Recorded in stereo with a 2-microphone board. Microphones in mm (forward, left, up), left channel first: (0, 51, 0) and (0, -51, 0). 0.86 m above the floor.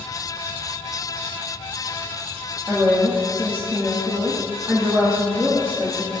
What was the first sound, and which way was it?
A woman speaking, 25° right (ahead or behind).